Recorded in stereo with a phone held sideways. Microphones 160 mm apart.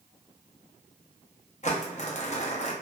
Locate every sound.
1.6 s crumpling: 45° left (ahead or behind), 0.6 m